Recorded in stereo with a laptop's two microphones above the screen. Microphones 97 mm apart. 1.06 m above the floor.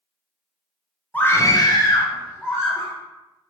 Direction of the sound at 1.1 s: 20° left (ahead or behind).